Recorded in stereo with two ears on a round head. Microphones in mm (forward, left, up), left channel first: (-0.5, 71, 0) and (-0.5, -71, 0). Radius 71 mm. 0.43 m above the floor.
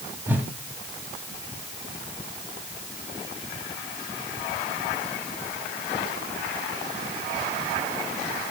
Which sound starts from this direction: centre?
A whoosh, at 0.3 s.